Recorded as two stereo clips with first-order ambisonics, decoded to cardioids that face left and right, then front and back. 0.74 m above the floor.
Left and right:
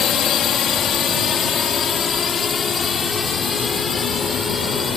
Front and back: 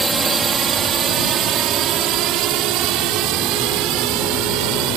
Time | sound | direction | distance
0.0 | a drone | 115° left | ?